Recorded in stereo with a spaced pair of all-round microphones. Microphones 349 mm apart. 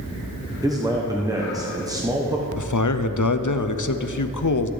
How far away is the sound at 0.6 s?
About 0.9 m.